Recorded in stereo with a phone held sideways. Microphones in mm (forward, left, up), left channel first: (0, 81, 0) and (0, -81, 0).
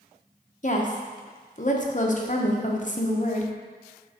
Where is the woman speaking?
50° left (ahead or behind), 0.8 m.